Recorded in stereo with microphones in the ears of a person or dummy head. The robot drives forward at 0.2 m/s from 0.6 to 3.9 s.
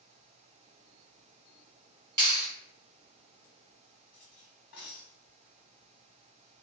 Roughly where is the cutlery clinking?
Left.